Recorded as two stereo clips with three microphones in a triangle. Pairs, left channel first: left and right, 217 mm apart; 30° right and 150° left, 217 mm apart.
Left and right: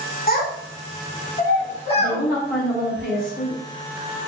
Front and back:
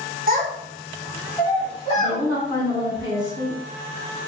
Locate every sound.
0.3 s a child speaking: 120° left, 0.8 m; by 2.2 s 25° left, 1.0 m
1.9 s a woman speaking: 80° left, 1.9 m